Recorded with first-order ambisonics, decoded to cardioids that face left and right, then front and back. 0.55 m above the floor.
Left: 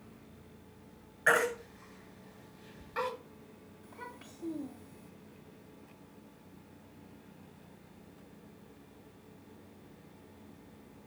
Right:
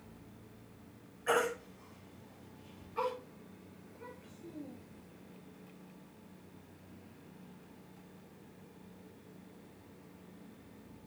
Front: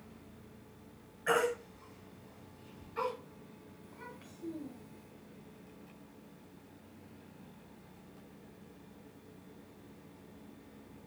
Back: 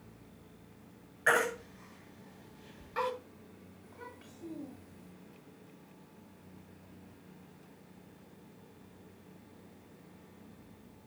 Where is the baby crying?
130° left, 7 m.